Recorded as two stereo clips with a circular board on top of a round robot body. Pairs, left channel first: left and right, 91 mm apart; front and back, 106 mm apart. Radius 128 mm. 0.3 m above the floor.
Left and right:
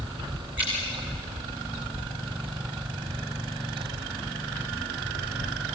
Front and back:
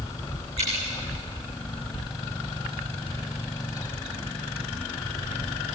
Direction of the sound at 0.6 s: 165° right.